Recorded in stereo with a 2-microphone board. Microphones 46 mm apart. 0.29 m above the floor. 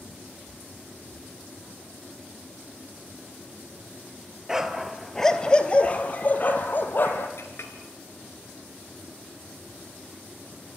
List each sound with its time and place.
4.5 s a dog barking: 10° right (ahead or behind), 2 m; by 7.3 s 50° left (ahead or behind), 3.5 m
7.4 s a clink: 70° left (ahead or behind), 3.5 m